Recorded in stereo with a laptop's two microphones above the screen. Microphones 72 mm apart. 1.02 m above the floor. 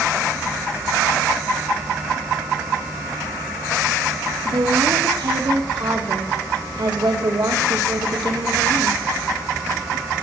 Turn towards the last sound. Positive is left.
turn(degrees=-85)